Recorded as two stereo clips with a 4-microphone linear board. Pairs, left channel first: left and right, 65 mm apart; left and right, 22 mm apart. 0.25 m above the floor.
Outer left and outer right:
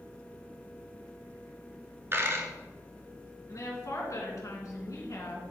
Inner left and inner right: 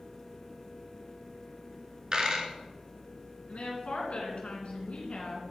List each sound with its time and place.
2.1 s a dropped coin: 40° right (ahead or behind), 1.1 m
3.5 s a woman speaking: 55° left (ahead or behind), 2.5 m